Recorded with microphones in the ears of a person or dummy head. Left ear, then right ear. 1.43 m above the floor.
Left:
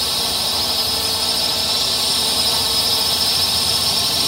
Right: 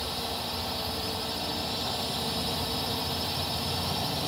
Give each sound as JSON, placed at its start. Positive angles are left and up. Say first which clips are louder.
{"t": 0.0, "sound": "a drone", "louder": "left 13 dB", "side_deg": 35}